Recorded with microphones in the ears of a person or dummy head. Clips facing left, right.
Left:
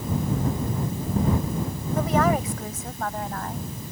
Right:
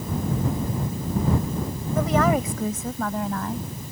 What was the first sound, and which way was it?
A woman speaking, 70° right (ahead or behind).